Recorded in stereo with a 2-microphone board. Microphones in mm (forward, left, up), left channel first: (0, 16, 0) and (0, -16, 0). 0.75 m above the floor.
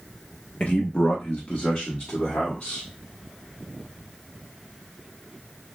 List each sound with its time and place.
0.6 s a man speaking: 45° left (ahead or behind), 0.7 m; by 2.8 s 55° left (ahead or behind), 1.9 m